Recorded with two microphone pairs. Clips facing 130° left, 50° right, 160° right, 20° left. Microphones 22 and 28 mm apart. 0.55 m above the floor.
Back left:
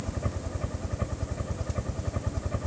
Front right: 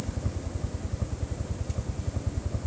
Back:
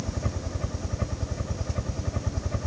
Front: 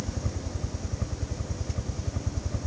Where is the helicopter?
150° left.